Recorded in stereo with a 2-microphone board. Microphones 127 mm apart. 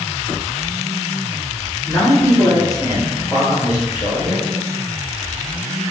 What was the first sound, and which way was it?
A man speaking, 20° left (ahead or behind).